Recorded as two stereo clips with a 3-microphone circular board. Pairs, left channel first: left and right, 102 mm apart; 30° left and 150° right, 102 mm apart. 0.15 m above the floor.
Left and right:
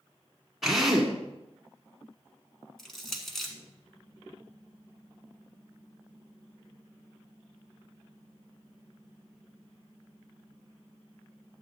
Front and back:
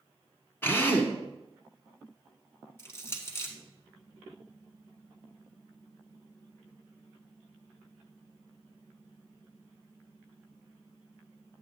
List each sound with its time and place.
0.6 s a drill: 5° right, 1.2 m
2.8 s crushing: 5° left, 1.4 m